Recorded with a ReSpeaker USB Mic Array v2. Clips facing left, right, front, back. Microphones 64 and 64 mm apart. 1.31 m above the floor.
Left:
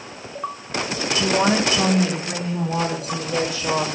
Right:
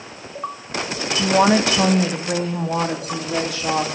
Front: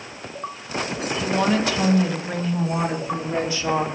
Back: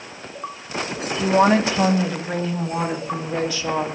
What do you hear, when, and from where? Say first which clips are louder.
1.2 s a woman speaking: right 4 dB, back 5 dB; 135° right, 1.8 m; by 3.9 s 60° right, 3.5 m